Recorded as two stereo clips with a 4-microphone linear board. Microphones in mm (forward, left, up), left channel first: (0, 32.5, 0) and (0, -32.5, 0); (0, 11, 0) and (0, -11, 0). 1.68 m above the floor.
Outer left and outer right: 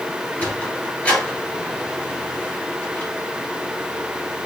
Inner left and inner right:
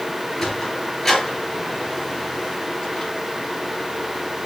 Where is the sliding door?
25° left (ahead or behind), 2.5 m.